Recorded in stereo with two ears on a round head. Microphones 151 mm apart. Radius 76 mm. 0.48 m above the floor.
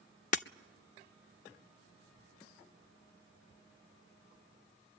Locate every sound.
0.3 s breaking glass: 45° left (ahead or behind), 0.5 m